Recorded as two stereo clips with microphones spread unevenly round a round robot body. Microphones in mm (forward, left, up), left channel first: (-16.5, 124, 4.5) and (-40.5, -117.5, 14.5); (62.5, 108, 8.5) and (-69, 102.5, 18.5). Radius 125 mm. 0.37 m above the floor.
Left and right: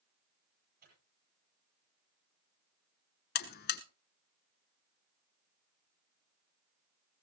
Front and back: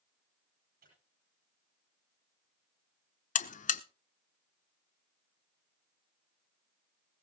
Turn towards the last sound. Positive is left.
turn(degrees=30)